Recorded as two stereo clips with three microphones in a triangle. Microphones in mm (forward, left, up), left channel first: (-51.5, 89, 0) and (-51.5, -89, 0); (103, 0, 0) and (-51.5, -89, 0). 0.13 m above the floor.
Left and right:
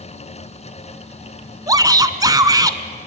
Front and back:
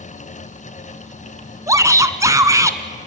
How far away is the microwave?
I don't hear a microwave.